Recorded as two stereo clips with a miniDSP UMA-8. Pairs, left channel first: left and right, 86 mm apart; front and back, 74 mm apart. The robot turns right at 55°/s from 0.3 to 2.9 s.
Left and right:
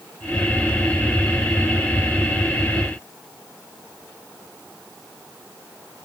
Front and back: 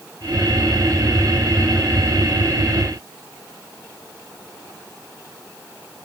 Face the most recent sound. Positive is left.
No sound to turn to.